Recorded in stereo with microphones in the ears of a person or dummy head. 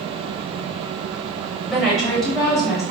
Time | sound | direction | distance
1.7 | a woman speaking | 5° left (ahead or behind) | 1.7 m